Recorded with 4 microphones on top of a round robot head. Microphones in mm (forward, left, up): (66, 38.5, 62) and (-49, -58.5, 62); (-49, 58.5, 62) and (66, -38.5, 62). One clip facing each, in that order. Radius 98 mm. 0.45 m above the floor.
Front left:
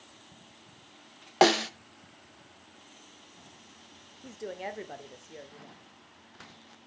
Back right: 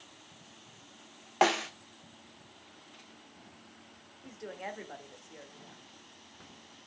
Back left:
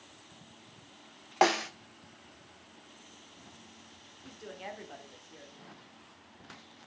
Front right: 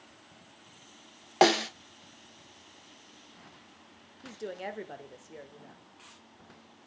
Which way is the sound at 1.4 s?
5° left.